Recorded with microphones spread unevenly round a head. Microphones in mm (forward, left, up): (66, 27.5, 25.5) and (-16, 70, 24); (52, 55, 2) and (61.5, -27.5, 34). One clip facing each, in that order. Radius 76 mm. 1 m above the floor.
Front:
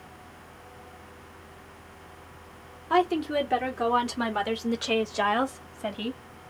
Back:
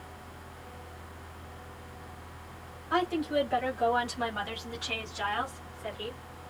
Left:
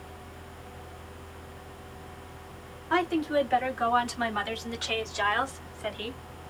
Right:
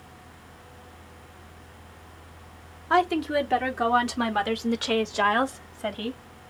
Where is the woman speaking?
65° right, 3 m; by 6.2 s 30° right, 1.8 m.